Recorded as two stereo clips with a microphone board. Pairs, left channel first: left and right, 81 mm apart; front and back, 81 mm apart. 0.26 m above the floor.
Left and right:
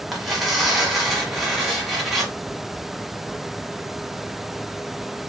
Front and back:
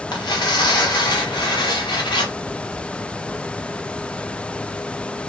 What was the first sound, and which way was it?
Tearing paper, 5° right.